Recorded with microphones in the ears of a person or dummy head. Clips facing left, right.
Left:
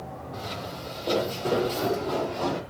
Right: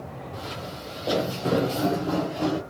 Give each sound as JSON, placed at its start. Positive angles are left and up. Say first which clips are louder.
{"t": 0.3, "sound": "footsteps", "louder": "left 1 dB", "side_deg": -5, "distance_m": 2.0}